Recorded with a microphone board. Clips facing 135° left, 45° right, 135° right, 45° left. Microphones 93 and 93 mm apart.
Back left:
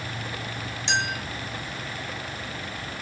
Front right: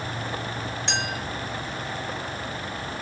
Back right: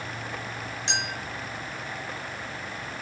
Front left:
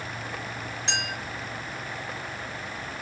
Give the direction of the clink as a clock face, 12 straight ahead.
12 o'clock.